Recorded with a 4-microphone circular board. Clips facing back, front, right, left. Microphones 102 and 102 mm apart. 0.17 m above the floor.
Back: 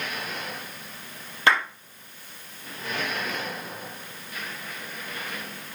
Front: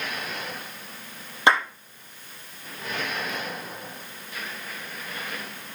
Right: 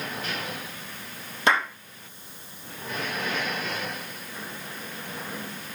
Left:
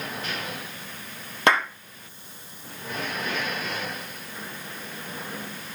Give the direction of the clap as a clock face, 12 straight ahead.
10 o'clock.